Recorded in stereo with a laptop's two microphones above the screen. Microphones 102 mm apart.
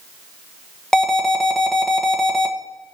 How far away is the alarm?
About 1.3 m.